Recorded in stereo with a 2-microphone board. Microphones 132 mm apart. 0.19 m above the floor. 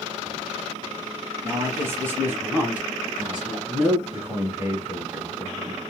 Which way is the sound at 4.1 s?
20° right (ahead or behind).